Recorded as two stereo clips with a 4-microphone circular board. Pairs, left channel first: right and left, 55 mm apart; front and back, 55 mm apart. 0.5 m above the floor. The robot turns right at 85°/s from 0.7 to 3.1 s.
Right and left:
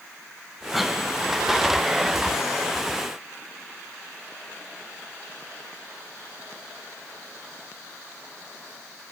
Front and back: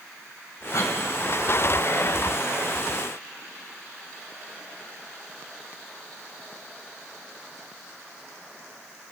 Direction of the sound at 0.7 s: Straight ahead.